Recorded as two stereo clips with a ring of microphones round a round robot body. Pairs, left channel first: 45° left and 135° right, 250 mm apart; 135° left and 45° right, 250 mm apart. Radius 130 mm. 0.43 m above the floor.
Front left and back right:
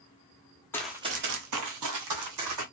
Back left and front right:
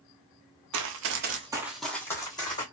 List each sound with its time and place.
0.7 s running footsteps: 35° right, 0.8 m; by 2.6 s 150° right, 1.9 m